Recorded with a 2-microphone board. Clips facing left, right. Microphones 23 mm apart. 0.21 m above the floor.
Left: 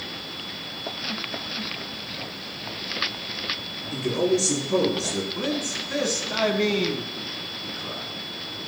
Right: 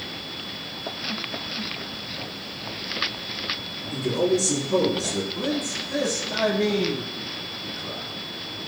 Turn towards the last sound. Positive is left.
turn(degrees=45)  # may be behind; listen again after turning